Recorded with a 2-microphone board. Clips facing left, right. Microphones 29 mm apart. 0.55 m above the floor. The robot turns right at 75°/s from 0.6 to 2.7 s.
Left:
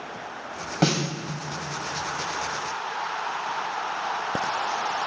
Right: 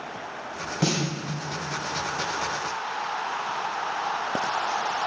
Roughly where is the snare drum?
Left.